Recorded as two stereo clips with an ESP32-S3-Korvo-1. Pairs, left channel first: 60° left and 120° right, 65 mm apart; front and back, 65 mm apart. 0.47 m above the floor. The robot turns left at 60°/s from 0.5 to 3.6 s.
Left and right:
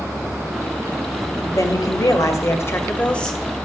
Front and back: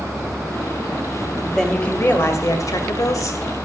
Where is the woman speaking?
90° left, 2 m; by 3.4 s 25° right, 2 m.